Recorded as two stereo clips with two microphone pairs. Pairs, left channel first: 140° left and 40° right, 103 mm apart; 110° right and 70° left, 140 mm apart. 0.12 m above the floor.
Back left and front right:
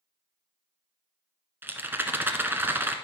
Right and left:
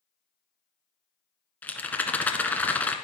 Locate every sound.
1.6 s a rattle: 55° right, 1.1 m